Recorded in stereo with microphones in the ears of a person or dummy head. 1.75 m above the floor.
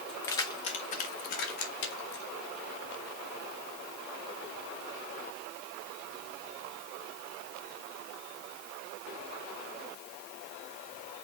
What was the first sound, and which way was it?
Keys jangling, centre (ahead or behind).